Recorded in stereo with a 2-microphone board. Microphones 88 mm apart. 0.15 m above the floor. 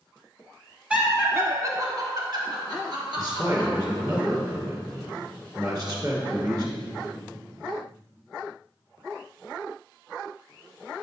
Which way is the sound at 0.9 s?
15° right (ahead or behind).